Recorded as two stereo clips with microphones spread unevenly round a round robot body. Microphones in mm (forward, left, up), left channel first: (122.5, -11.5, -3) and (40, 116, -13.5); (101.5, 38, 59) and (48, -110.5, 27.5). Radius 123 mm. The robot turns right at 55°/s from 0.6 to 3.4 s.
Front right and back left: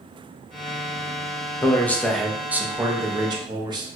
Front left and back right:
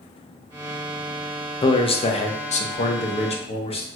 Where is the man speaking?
10° left, 0.5 m; by 3.9 s 105° left, 0.5 m.